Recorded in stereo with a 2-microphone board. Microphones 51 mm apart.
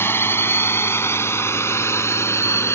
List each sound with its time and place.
0.0 s a drone: 45° left (ahead or behind); by 2.8 s 60° left (ahead or behind)